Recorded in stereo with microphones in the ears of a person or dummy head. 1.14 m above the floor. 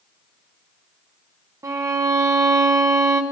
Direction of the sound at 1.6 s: 15° right (ahead or behind).